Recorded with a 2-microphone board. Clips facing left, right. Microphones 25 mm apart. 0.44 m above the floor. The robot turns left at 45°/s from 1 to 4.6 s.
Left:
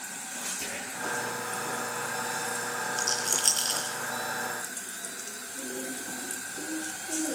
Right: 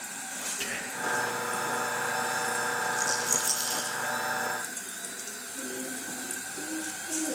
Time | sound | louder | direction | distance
0.6 | whispering | right 2 dB | 60° right (ahead or behind) | 6.5 m
3.0 | a rattle | even | 40° left (ahead or behind) | 7 m